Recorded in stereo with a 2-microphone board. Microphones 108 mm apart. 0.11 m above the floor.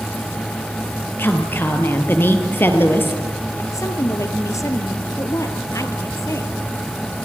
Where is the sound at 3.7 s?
30° left (ahead or behind), 1.8 m.